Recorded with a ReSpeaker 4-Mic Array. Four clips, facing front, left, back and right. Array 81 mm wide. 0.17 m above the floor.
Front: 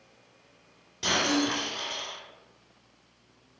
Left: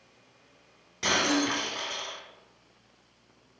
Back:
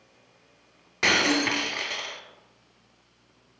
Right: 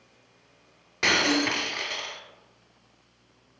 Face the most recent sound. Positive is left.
turn(degrees=-145)